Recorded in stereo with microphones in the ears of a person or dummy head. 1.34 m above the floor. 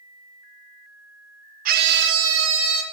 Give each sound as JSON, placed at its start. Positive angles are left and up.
{"t": 1.6, "sound": "a scream", "side_deg": -55, "distance_m": 1.0}